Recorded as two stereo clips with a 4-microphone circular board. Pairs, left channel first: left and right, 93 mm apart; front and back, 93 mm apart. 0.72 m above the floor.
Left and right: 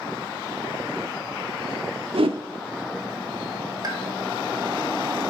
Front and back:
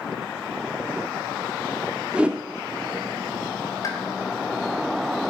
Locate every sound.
2.1 s a whoosh: 105° right, 0.9 m
3.8 s a pop: 50° right, 1.9 m